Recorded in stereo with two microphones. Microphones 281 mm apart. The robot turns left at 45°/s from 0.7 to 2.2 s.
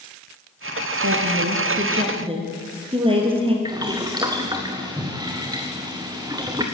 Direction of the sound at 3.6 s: 15° right (ahead or behind).